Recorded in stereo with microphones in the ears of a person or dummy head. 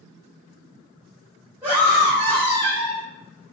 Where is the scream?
10° right (ahead or behind), 2 m; by 3.0 s 20° left (ahead or behind), 2 m.